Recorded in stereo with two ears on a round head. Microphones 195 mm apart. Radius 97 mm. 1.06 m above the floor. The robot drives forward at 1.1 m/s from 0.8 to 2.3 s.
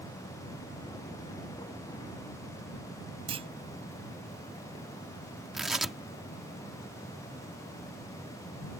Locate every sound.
3.3 s a clunk: 25° right (ahead or behind)
5.5 s tearing paper: centre (ahead or behind)